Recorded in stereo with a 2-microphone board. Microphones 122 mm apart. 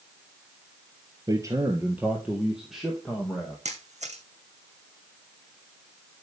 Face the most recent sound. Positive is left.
turn(degrees=-70)  # may be behind; listen again after turning